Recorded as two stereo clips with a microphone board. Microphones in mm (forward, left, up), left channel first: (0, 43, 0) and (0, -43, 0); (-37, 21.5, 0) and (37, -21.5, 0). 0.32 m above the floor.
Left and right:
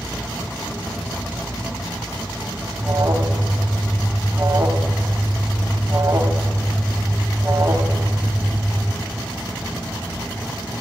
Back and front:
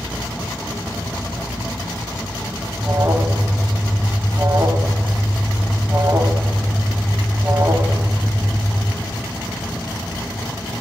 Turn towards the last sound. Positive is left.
turn(degrees=-60)